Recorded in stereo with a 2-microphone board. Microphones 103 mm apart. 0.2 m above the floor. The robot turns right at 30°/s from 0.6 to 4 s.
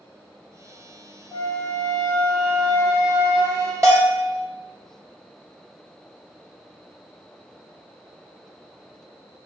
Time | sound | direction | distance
1.3 | a flute | 135° left | 1.7 m
3.8 | a bell | 30° right (ahead or behind) | 1.0 m